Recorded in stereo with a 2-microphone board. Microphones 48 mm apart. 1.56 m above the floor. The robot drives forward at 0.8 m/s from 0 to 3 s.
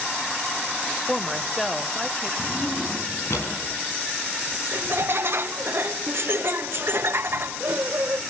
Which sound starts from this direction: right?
Laughter, at 4.7 s.